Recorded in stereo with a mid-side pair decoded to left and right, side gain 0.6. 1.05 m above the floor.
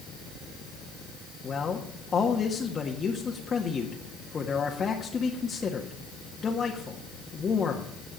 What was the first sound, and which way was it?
A man speaking, 30° left.